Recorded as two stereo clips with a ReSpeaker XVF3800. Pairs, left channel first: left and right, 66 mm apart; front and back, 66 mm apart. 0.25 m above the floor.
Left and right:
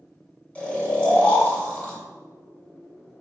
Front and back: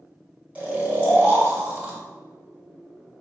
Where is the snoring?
135° left, 1.5 m.